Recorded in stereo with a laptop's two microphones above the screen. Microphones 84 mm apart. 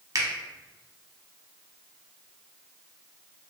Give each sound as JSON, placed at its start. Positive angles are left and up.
{"t": 0.1, "sound": "a finger snap", "side_deg": -40, "distance_m": 0.7}